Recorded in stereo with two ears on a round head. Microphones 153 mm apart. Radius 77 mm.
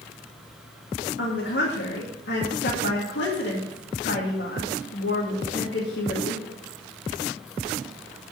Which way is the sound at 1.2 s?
70° left (ahead or behind).